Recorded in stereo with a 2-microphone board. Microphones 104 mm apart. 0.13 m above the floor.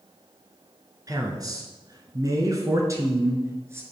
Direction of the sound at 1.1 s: 35° right (ahead or behind).